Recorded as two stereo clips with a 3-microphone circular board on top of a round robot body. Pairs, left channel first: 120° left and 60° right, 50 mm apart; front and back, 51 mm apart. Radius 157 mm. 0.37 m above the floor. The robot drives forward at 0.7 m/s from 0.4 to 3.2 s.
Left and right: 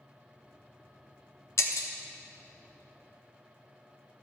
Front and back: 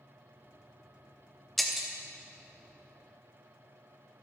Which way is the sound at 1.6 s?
90° left.